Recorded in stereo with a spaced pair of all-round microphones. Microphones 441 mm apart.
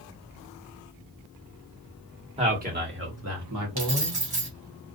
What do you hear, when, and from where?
2.4 s a man speaking: 15° right (ahead or behind), 1.2 m; by 4.2 s 55° right (ahead or behind), 1.2 m
3.8 s keys jangling: 55° right (ahead or behind), 1.1 m